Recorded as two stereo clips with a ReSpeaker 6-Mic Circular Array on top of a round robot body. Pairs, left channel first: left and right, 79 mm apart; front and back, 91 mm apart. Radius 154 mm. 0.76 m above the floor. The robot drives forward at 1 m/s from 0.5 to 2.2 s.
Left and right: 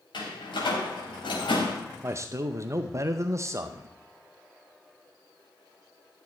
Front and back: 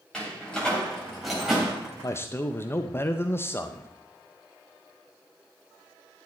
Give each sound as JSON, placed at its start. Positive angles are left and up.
{"t": 0.1, "sound": "a door slam", "azimuth_deg": 80, "distance_m": 3.5}
{"t": 2.0, "sound": "a man speaking", "azimuth_deg": -40, "distance_m": 0.8}